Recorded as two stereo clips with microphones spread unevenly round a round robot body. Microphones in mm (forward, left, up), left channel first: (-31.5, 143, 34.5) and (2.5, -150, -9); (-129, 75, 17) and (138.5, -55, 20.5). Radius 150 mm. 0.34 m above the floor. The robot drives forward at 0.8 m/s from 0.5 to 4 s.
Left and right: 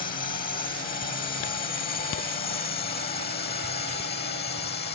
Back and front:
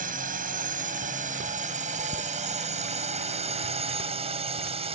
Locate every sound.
0.0 s a drone: 30° left; by 5.0 s 40° left